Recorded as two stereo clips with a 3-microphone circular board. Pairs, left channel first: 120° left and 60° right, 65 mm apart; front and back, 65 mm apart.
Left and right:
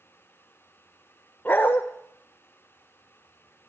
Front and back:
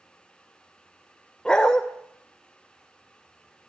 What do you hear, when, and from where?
1.4 s a dog barking: 70° left, 1.0 m